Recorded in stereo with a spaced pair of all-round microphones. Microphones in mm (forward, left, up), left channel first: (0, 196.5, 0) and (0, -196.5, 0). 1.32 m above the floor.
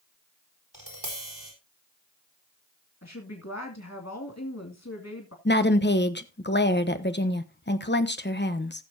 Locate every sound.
0.7 s tapping: 85° right, 4.5 m
3.0 s a woman speaking: 45° left (ahead or behind), 2.5 m
5.5 s a woman speaking: 30° left (ahead or behind), 1.0 m